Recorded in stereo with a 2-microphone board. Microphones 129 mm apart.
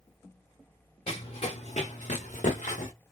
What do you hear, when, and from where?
1.1 s running footsteps: 50° left (ahead or behind), 1.5 m; by 2.9 s 80° left, 1.3 m